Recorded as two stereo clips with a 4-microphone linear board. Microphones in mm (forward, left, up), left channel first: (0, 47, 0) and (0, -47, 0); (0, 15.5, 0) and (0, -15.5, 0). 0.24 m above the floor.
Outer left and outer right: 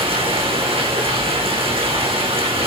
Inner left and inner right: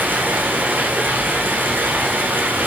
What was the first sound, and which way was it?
Running water, 85° right.